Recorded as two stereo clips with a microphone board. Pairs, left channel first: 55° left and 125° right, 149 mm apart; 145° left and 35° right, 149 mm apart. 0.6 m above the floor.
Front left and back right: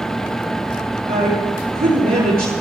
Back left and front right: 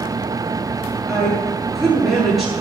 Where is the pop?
No pop in this recording.